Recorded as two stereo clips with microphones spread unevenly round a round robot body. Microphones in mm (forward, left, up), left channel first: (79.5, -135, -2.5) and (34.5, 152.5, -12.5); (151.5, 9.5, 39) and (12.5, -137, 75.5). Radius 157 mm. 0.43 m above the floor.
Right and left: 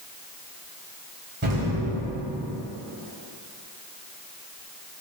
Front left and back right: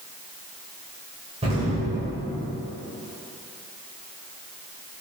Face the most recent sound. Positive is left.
turn(degrees=155)